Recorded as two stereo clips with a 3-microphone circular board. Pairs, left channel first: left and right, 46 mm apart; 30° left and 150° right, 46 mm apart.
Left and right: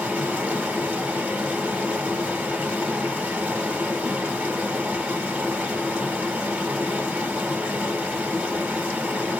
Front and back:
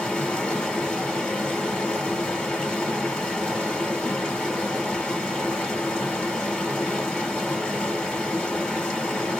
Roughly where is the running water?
Ahead right.